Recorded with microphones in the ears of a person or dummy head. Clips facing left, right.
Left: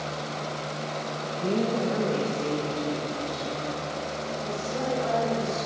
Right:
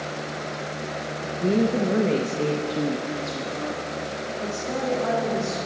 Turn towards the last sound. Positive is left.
turn(degrees=-85)